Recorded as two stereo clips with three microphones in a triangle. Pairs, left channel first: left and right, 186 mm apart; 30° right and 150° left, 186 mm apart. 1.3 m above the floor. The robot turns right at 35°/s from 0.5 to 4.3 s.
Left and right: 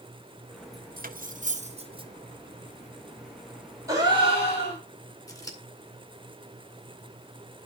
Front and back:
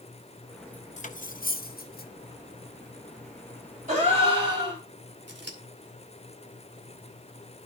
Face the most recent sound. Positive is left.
turn(degrees=160)